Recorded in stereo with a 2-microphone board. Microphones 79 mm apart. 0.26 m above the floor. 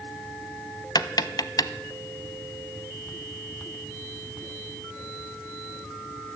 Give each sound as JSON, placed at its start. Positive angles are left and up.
{"t": 0.9, "sound": "tapping", "side_deg": 60, "distance_m": 0.5}